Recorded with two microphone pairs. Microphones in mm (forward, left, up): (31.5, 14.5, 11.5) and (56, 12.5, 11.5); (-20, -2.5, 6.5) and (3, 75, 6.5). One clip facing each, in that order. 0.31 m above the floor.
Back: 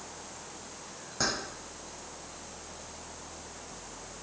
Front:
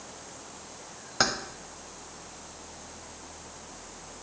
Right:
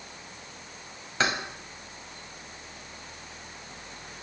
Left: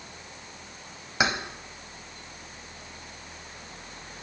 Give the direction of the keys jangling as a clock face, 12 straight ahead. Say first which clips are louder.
Front 5 dB, left 1 dB; 12 o'clock.